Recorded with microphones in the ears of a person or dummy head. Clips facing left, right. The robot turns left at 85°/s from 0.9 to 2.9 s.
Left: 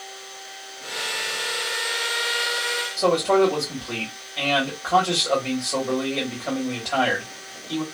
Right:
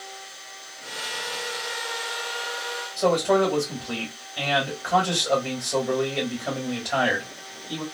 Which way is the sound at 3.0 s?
10° right (ahead or behind).